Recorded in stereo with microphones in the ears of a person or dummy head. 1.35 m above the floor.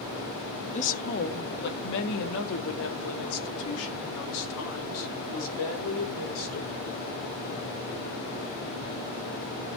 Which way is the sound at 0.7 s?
40° left (ahead or behind).